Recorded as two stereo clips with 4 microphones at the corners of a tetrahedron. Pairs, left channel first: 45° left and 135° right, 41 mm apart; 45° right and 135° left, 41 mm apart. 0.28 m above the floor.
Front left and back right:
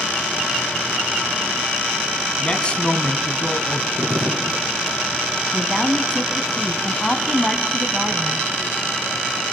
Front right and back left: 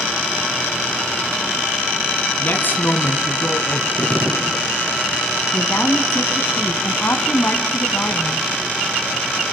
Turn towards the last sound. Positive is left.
turn(degrees=-35)